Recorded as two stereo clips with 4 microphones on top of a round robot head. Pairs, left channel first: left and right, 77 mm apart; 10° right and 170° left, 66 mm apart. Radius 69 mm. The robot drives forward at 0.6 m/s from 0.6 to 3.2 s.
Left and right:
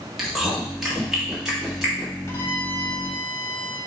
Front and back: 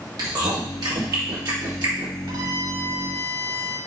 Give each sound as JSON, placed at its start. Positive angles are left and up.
{"t": 0.2, "sound": "chewing", "azimuth_deg": -175, "distance_m": 2.5}
{"t": 2.3, "sound": "a violin", "azimuth_deg": 150, "distance_m": 1.4}